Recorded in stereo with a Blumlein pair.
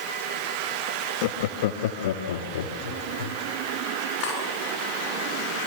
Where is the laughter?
50° left, 1.6 m; by 3.4 s 60° left, 3.5 m.